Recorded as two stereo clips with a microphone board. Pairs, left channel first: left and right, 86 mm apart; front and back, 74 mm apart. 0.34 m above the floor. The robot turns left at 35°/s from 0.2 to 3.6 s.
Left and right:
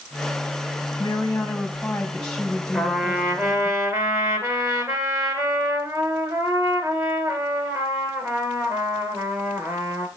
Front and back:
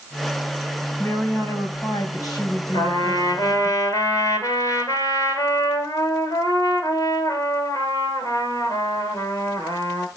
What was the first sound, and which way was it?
A woman speaking, 55° left.